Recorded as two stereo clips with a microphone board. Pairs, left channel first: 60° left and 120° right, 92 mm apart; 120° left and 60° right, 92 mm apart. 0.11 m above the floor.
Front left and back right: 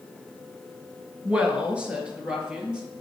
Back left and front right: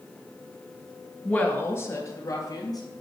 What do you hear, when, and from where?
1.2 s a woman speaking: 175° right, 1.2 m; by 2.8 s 165° left, 2.5 m